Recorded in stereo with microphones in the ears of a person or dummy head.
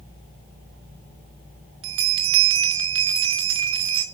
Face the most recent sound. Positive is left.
turn(degrees=-25)  # may be behind; listen again after turning